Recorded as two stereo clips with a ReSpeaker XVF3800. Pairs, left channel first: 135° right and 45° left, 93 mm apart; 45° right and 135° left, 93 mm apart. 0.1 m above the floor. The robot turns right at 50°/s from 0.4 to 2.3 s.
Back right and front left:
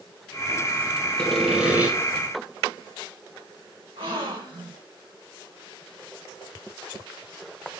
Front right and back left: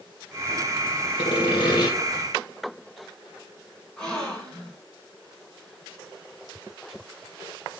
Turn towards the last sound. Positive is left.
turn(degrees=35)